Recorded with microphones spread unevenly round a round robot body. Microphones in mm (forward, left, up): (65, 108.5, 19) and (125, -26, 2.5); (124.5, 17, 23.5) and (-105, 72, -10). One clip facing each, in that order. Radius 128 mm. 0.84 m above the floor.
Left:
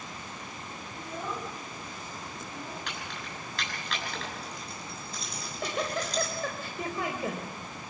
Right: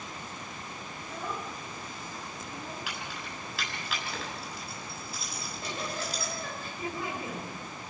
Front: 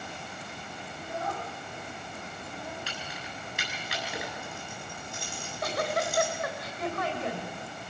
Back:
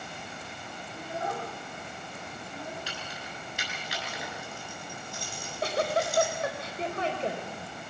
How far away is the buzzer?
No buzzer in this recording.